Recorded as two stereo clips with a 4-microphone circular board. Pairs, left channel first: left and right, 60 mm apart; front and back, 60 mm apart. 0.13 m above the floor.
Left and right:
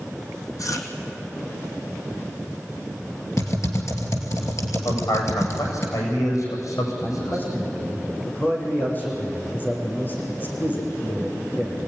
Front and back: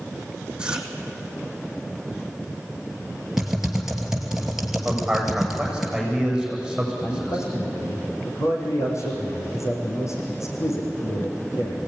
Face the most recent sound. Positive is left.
turn(degrees=30)